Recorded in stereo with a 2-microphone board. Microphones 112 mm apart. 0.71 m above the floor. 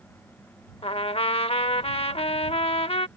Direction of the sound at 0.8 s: 60° left (ahead or behind).